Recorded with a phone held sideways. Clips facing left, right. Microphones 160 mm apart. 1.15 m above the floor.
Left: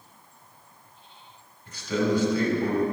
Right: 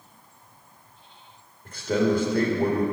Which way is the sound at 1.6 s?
55° right (ahead or behind).